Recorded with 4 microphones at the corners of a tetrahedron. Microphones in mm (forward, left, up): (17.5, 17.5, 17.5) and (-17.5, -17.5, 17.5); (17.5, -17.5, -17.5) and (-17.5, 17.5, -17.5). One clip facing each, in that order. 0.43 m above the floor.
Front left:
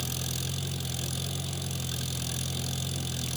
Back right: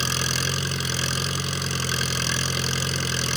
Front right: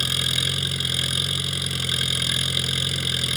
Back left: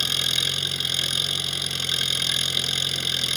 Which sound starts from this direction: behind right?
An engine running, at 0.0 s.